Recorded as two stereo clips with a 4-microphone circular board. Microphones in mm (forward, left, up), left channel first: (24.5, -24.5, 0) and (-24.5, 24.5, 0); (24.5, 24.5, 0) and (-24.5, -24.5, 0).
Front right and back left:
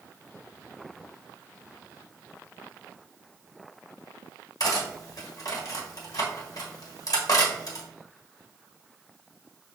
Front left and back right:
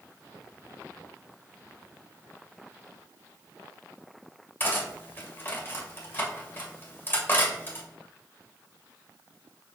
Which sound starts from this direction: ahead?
Cutlery clinking, at 4.6 s.